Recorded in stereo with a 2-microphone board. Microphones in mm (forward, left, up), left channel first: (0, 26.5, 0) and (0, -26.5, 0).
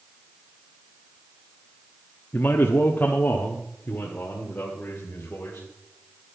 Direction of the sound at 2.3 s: 40° left (ahead or behind).